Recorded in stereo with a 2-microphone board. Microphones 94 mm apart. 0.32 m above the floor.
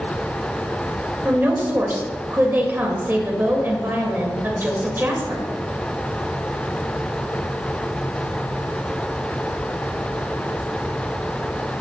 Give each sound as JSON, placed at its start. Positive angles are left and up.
{"t": 1.2, "sound": "a woman speaking", "side_deg": -25, "distance_m": 1.5}